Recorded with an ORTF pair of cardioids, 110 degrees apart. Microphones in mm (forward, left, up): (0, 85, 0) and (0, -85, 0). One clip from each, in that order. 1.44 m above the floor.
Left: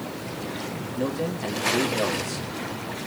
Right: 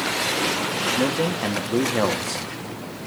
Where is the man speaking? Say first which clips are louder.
Right 6 dB; 35° right, 2 m.